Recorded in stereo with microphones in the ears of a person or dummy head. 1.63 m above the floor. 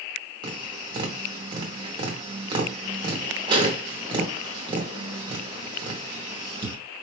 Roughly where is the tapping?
Centre.